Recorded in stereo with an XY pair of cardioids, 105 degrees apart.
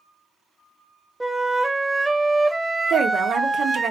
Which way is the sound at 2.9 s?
60° right.